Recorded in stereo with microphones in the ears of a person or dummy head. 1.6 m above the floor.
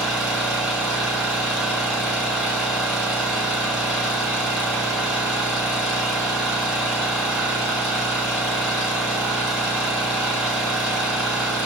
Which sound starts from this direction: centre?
An engine running, at 0.0 s.